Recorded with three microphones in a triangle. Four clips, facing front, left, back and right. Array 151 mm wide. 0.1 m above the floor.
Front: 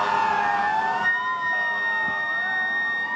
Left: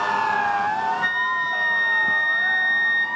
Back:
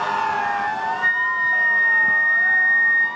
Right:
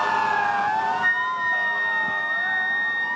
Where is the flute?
115° left, 2 m.